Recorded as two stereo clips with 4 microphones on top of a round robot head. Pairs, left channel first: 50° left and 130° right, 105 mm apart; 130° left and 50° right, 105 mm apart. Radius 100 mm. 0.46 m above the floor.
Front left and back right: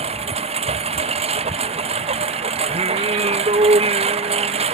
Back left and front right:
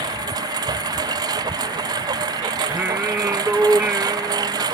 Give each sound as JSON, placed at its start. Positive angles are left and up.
{"t": 0.0, "sound": "a lawn mower", "azimuth_deg": -105}
{"t": 2.7, "sound": "singing", "azimuth_deg": -125}